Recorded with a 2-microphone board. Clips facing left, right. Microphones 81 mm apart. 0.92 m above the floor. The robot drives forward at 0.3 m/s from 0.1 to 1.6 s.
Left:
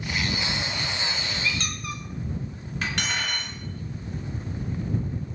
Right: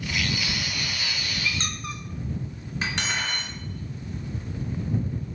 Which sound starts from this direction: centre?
Cutlery clinking, at 2.8 s.